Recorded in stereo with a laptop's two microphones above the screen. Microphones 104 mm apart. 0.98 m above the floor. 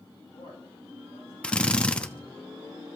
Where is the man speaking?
80° left, 7.5 m.